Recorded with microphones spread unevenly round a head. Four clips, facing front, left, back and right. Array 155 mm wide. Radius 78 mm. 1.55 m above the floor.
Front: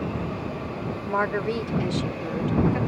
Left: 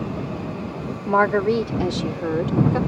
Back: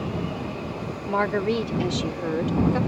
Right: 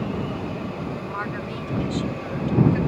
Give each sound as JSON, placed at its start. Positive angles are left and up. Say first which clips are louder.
{"t": 1.1, "sound": "a woman speaking", "louder": "left 12 dB, back 2 dB", "azimuth_deg": 95}